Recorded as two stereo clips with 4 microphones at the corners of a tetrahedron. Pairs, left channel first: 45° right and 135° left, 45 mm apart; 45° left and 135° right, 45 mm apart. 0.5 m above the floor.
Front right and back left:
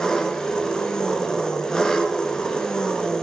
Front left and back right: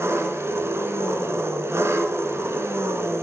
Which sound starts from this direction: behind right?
An engine running, at 0.0 s.